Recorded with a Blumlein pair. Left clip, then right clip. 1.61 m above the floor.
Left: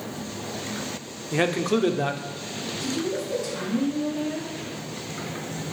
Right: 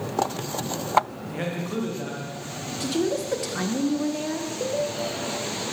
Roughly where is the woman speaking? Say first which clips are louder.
Right 4 dB; ahead right.